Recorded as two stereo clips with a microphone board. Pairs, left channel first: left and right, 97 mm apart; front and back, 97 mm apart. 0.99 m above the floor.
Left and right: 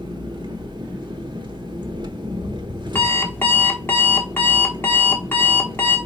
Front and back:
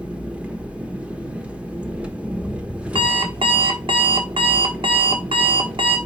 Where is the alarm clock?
155° left, 1.2 m.